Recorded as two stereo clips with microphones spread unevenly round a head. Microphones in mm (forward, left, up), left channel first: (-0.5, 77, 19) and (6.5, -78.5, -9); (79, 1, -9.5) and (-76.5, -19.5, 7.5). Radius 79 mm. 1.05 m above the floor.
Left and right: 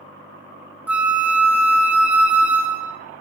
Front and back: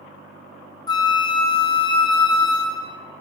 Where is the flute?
25° right, 0.6 m.